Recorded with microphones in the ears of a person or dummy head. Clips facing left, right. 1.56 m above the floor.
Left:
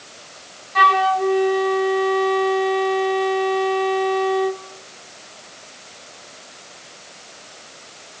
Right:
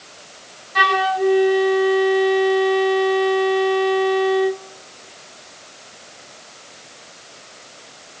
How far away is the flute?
About 0.6 m.